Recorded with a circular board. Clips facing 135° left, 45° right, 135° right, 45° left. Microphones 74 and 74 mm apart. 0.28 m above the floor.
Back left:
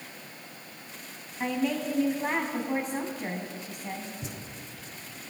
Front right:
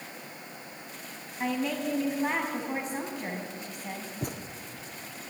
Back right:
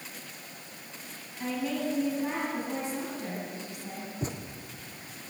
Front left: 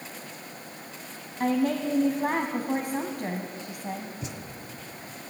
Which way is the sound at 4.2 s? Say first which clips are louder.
Front right 5 dB, back right 3 dB; 80° right.